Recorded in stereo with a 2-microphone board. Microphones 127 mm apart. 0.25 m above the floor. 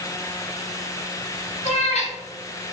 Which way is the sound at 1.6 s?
65° left (ahead or behind).